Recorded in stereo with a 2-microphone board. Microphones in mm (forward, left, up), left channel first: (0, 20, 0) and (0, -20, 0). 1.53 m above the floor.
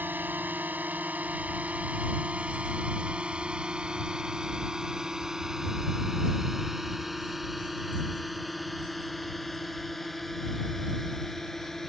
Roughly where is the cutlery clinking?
I don't hear cutlery clinking.